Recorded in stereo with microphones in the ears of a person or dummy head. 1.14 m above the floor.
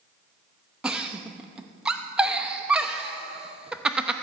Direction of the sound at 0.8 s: 10° right (ahead or behind).